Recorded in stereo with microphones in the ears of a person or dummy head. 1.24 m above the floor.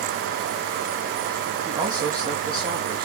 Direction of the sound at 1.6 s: 30° right (ahead or behind).